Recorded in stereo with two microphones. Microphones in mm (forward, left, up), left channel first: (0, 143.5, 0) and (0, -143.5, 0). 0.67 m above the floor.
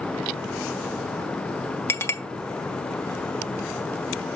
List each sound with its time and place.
1.9 s a clink: 10° left (ahead or behind), 0.9 m